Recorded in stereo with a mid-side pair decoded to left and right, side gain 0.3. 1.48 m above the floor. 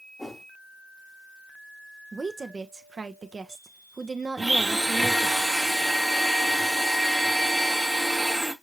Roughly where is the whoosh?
Ahead.